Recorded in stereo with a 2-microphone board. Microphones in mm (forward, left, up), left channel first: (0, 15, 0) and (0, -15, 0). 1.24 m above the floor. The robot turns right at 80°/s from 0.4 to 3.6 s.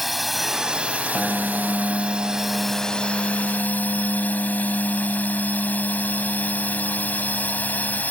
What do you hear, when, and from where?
0.0 s a drone: straight behind; by 8.1 s 80° left
1.1 s a piano: 165° left; by 8.0 s straight ahead